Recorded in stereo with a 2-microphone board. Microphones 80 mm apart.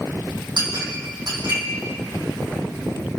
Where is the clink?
70° right (ahead or behind), 4 m.